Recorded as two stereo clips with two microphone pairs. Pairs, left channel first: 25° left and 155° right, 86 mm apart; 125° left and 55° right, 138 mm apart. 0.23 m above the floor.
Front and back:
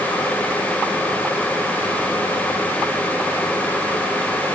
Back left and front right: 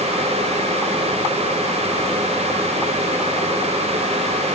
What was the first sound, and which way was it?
Only background noise.